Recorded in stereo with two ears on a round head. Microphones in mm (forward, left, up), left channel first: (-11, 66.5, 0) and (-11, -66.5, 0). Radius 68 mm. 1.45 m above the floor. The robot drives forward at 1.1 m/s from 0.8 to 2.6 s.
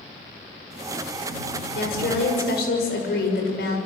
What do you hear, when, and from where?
1.8 s a woman speaking: 90° left, 6.5 m; by 3.8 s 85° left, 6.5 m